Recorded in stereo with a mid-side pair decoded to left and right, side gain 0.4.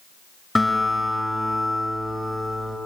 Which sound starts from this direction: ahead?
A guitar, at 0.6 s.